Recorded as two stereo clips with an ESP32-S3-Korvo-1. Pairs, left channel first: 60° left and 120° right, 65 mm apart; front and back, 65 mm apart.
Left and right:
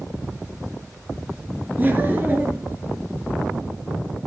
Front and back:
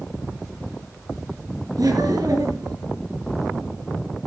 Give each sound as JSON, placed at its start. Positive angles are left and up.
{"t": 1.8, "sound": "laughter", "azimuth_deg": 180, "distance_m": 4.0}